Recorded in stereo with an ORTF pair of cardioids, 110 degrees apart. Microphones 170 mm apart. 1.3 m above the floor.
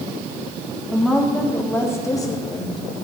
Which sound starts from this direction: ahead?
A woman speaking, at 0.9 s.